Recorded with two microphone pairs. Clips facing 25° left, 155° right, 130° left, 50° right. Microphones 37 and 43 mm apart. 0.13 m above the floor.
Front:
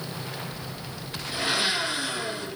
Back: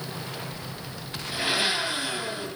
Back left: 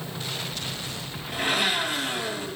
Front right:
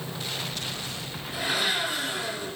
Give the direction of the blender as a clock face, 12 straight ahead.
7 o'clock.